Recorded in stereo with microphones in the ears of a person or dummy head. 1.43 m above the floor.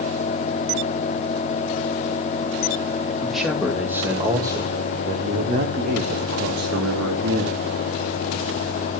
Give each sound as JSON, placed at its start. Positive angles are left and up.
{"t": 3.2, "sound": "a man speaking", "side_deg": 0, "distance_m": 2.5}